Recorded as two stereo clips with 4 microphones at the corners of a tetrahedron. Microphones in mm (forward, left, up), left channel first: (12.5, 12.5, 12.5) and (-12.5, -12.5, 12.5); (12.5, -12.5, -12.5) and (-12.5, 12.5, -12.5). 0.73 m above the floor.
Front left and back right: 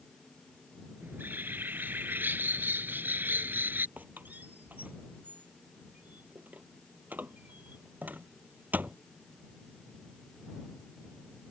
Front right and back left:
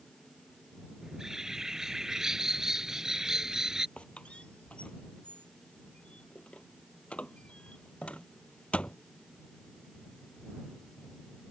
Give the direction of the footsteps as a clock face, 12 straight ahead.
I don't hear footsteps.